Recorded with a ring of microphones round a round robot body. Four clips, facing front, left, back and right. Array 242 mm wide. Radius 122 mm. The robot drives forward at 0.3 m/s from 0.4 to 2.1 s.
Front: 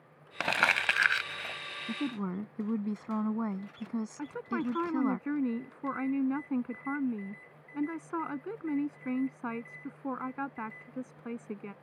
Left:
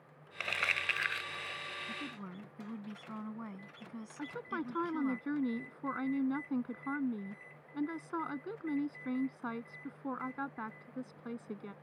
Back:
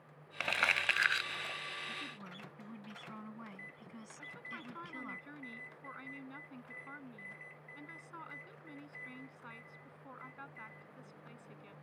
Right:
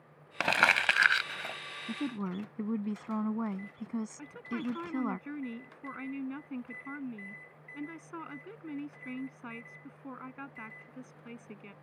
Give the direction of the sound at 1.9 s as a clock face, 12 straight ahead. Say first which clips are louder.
Right 9 dB, front 14 dB; 1 o'clock.